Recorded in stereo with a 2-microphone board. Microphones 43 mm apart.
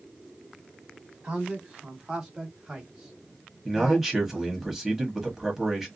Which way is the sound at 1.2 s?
20° right (ahead or behind).